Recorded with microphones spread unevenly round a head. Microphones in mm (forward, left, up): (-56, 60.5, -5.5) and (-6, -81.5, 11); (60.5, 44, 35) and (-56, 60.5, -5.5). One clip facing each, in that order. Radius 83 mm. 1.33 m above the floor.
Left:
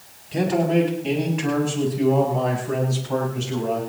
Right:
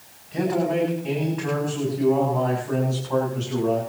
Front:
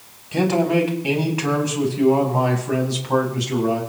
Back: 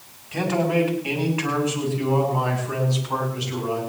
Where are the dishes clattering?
No dishes clattering in this recording.